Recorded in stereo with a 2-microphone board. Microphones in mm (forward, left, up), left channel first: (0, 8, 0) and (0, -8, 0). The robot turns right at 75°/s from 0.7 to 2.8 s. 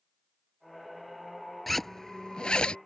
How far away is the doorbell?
No doorbell in this recording.